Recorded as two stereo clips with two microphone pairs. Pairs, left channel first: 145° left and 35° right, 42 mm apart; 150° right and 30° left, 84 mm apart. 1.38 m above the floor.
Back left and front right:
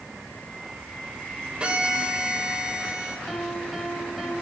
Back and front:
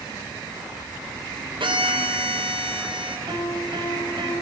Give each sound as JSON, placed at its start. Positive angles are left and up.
{"t": 1.6, "sound": "a violin", "azimuth_deg": 30, "distance_m": 5.0}
{"t": 3.3, "sound": "a piano", "azimuth_deg": 50, "distance_m": 8.5}